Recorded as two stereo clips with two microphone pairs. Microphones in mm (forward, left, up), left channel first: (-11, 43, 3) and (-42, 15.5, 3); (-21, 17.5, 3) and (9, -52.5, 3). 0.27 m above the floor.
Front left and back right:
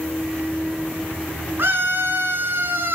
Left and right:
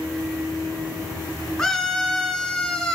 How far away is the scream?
About 2.5 m.